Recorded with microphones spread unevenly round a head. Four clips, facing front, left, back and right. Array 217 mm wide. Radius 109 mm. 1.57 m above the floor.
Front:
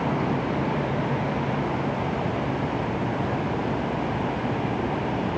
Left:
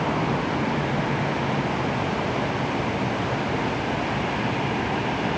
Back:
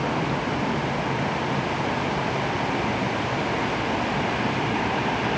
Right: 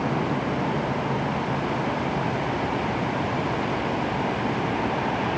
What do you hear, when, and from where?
Only background noise.